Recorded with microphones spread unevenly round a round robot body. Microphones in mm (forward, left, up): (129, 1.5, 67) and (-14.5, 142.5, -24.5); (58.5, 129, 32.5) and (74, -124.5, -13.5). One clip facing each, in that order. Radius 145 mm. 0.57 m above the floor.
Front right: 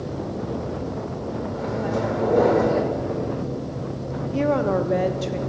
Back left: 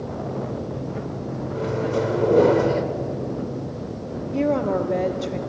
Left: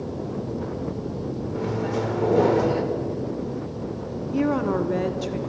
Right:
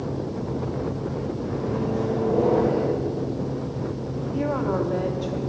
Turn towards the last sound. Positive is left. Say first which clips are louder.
# even, left 3 dB
turn(degrees=110)